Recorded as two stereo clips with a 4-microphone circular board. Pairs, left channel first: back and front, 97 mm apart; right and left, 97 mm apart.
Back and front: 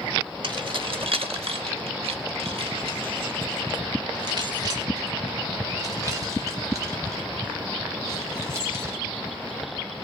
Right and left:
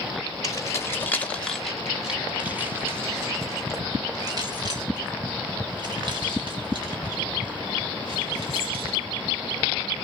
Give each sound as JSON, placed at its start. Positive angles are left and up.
{"t": 0.4, "sound": "keys jangling", "azimuth_deg": -35, "distance_m": 1.4}